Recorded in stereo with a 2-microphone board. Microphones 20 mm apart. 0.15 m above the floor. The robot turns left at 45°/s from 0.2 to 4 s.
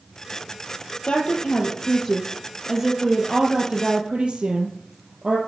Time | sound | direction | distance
1.1 | a woman speaking | 70° left | 4.5 m